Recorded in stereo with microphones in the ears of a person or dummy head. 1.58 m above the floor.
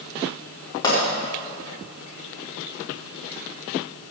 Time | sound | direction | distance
0.8 | a pop | 25° left (ahead or behind) | 5 m